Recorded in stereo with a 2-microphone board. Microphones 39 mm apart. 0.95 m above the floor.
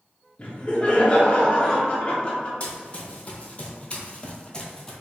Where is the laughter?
25° left (ahead or behind), 1.2 m.